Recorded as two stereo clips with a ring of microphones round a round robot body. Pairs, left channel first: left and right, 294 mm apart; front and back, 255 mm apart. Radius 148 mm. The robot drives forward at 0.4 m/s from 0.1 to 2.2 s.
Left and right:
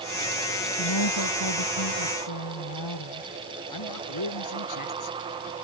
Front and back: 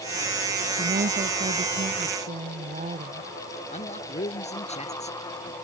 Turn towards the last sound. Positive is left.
turn(degrees=65)